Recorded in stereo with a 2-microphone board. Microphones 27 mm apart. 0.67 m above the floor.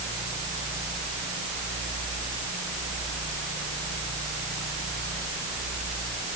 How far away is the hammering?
I don't hear hammering.